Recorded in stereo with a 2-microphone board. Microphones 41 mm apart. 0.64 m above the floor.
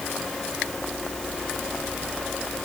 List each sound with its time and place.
Only background noise.